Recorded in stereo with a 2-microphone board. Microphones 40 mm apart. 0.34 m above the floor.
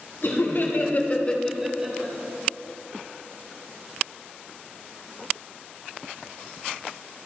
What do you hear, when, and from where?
0.2 s laughter: 65° left (ahead or behind), 2 m; by 2.1 s 40° right (ahead or behind), 1.3 m